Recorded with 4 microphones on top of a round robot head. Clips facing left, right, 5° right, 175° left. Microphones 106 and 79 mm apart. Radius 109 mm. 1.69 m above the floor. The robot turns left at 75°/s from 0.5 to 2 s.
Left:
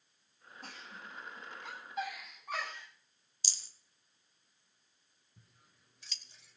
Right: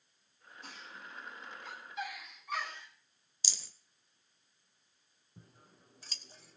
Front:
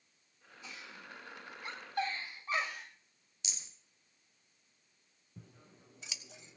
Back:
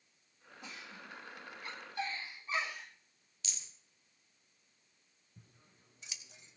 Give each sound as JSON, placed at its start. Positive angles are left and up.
{"t": 0.6, "sound": "a giggle", "azimuth_deg": 140, "distance_m": 8.0}
{"t": 3.4, "sound": "a rattle", "azimuth_deg": -85, "distance_m": 1.0}
{"t": 5.4, "sound": "scissors", "azimuth_deg": -30, "distance_m": 0.6}